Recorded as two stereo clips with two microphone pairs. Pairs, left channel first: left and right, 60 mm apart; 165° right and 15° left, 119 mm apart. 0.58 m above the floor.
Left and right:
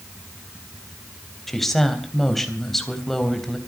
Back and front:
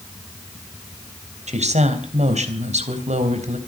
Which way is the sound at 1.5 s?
5° left.